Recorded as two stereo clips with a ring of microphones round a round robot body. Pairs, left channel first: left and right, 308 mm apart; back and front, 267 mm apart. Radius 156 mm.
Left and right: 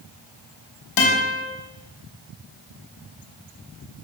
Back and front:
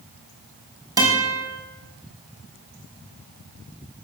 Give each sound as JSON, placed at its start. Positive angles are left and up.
{"t": 1.0, "sound": "a guitar", "azimuth_deg": 75, "distance_m": 5.5}